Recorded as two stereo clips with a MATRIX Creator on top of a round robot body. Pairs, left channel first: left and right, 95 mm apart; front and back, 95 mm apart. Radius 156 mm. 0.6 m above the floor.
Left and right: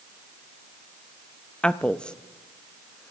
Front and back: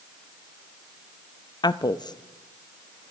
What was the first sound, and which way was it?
A woman speaking, 15° left.